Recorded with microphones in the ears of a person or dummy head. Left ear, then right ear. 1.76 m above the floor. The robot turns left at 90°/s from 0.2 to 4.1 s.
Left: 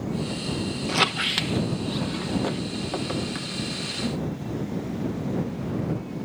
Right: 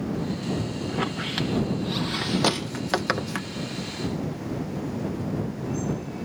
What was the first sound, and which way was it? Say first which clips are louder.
A squeak: left 8 dB; 60° left (ahead or behind).